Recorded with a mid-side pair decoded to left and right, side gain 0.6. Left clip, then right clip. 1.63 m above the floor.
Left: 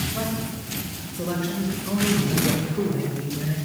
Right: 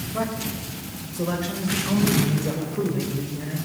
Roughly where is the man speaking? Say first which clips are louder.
Right 1 dB; ahead right.